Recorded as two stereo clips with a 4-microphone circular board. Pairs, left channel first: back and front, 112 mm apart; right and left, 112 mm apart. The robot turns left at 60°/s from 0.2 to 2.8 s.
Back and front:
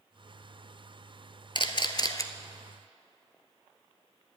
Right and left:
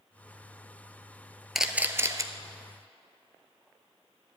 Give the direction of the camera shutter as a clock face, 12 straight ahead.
6 o'clock.